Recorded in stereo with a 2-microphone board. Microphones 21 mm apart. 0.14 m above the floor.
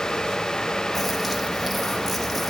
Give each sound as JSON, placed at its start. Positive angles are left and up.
{"t": 0.9, "sound": "a bird", "side_deg": 5, "distance_m": 2.5}